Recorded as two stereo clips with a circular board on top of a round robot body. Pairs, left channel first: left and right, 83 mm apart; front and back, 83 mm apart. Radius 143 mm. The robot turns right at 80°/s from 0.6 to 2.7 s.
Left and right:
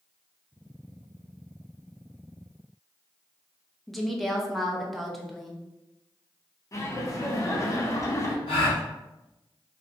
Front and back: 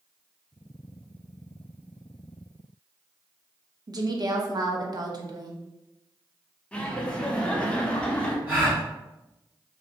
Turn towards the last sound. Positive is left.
turn(degrees=110)